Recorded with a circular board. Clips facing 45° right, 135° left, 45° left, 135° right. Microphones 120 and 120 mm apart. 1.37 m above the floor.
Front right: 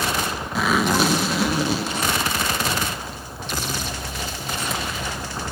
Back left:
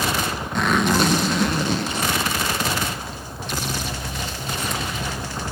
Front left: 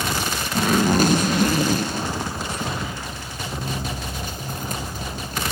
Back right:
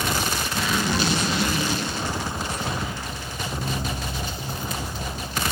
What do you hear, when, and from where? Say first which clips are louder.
0.6 s a zipper: even, front left 8 dB; 40° left, 0.6 m